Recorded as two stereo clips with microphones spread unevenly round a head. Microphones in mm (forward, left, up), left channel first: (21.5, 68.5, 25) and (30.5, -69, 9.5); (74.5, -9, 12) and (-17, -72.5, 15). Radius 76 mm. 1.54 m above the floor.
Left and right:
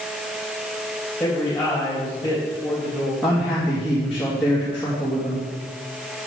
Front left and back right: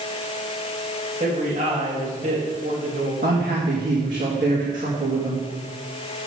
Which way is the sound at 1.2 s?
Straight behind.